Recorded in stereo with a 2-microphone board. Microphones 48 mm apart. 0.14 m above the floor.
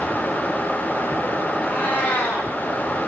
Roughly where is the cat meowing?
Left.